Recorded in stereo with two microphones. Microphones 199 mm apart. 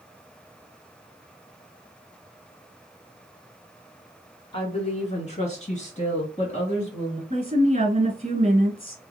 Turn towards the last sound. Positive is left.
turn(degrees=-30)  # may be behind; listen again after turning